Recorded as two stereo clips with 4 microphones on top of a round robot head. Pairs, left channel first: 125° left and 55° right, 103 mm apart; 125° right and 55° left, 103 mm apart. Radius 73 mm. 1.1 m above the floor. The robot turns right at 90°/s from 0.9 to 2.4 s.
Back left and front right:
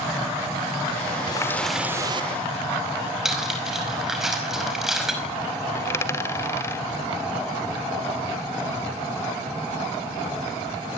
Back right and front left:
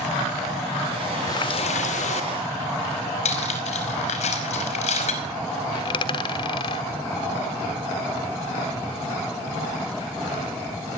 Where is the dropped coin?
170° right, 1.1 m.